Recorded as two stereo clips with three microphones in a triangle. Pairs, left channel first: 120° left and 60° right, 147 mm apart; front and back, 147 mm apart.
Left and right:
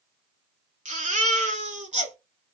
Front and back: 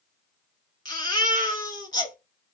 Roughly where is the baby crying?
Ahead right.